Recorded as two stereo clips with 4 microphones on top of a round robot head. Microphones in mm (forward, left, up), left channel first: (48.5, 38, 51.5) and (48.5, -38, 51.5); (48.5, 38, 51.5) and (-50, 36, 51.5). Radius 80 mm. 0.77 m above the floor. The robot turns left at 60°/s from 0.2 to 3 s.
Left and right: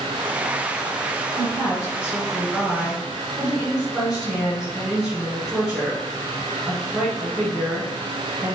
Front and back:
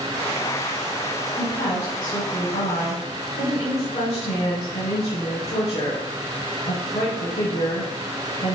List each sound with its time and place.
1.4 s a woman speaking: 85° left, 3.5 m; by 8.6 s 10° right, 3.5 m